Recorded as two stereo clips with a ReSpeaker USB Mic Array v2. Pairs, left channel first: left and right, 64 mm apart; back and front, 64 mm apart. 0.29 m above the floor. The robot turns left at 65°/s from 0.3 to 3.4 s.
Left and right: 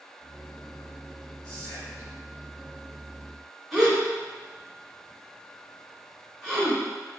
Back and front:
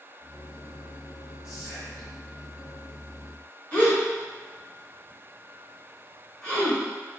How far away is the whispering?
About 1.9 m.